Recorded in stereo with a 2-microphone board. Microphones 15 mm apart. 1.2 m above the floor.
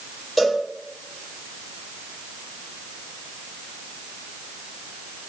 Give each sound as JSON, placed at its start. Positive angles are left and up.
{"t": 0.4, "sound": "a cowbell", "side_deg": 0, "distance_m": 9.5}